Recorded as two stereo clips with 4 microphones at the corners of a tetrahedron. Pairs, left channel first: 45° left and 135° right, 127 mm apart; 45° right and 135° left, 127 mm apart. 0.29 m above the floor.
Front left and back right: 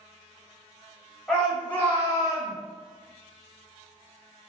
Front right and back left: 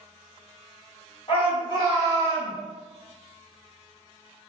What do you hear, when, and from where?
1.3 s a shout: 40° right, 1.9 m; by 2.5 s 30° left, 1.6 m